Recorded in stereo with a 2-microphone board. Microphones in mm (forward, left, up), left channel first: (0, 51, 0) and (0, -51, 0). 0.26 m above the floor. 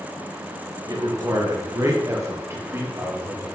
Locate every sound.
0.9 s a man speaking: 40° right (ahead or behind), 4 m; by 3.5 s 25° right (ahead or behind), 6.5 m